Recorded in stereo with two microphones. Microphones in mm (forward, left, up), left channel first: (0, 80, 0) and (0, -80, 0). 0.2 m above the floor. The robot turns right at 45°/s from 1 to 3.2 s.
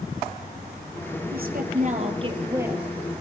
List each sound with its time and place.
1.3 s a woman speaking: 75° right, 4 m; by 2.8 s 5° right, 4 m